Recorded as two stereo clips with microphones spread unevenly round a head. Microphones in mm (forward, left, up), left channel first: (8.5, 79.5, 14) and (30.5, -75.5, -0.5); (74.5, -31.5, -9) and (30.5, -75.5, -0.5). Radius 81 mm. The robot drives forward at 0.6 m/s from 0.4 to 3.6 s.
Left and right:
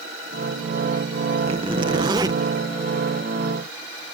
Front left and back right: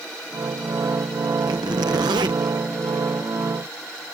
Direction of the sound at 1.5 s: 140° right.